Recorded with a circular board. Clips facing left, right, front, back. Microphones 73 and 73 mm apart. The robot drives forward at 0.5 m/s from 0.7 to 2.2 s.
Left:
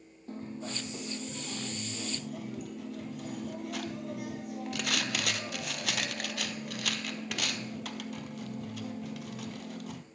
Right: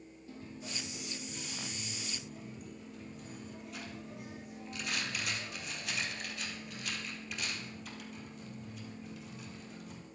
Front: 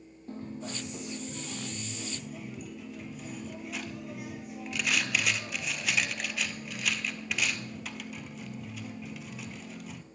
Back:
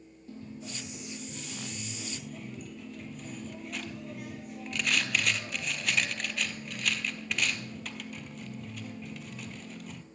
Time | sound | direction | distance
0.3 | a dropped coin | 45° left | 1.2 m